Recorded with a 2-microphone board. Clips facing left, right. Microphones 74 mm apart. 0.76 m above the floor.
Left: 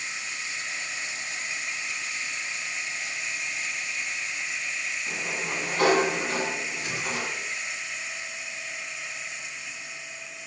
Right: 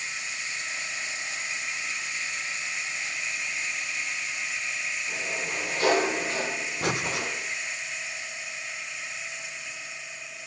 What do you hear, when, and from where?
5.1 s a sliding door: 80° left, 7.5 m
6.8 s breathing: 85° right, 1.3 m